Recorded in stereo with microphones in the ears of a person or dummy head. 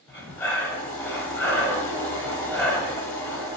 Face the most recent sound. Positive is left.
turn(degrees=5)  # may be behind; listen again after turning